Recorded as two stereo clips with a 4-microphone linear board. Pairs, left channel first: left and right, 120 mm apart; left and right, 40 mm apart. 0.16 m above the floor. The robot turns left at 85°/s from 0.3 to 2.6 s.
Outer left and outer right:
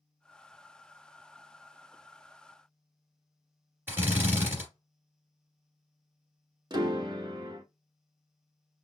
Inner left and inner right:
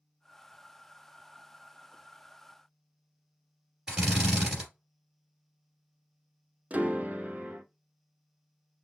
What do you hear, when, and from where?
3.9 s a drill: 20° right (ahead or behind), 2 m
6.7 s a piano: 35° right (ahead or behind), 0.6 m